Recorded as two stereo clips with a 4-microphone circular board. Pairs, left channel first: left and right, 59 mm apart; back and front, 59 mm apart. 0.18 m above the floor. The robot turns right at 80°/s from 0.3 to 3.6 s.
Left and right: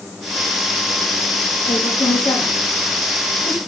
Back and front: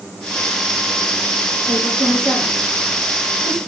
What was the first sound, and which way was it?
A woman speaking, 40° left.